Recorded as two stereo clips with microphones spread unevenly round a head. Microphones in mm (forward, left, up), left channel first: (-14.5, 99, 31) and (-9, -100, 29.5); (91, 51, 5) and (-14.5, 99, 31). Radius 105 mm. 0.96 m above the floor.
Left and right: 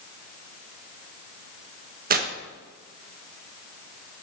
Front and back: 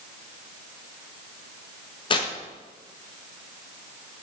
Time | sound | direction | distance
2.1 | tearing paper | 50° right | 1.1 m